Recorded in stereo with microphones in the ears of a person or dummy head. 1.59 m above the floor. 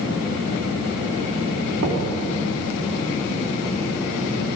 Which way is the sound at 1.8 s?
80° right.